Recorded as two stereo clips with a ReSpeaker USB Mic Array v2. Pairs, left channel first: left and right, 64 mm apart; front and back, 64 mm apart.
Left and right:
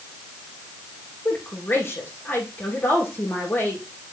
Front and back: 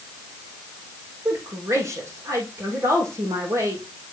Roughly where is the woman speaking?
Behind left.